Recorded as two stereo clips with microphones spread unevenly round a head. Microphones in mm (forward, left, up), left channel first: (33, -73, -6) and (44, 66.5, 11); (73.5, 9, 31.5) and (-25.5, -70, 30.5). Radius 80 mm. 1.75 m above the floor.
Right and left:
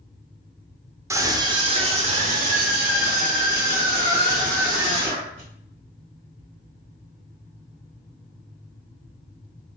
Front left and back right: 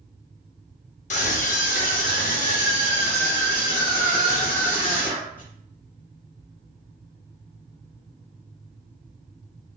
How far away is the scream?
About 0.8 m.